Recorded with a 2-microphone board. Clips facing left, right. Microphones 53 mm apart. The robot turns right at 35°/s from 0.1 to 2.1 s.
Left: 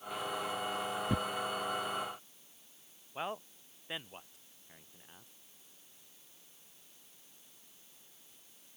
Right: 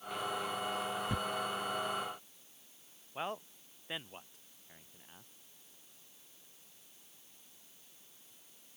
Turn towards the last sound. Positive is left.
turn(degrees=0)  # may be behind; listen again after turning